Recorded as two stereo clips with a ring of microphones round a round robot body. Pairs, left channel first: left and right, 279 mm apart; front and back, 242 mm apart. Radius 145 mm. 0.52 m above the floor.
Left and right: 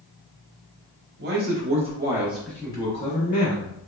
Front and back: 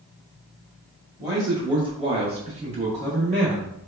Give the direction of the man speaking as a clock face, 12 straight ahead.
4 o'clock.